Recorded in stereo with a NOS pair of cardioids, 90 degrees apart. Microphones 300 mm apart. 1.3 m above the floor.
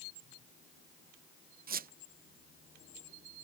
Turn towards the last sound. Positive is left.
turn(degrees=-35)